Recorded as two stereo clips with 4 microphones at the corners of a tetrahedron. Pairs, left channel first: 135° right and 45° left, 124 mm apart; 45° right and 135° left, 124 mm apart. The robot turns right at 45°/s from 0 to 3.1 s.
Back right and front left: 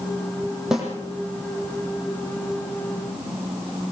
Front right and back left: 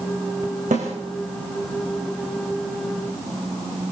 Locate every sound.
0.7 s a snare drum: 130° left, 7.5 m; by 0.8 s 135° left, 7.5 m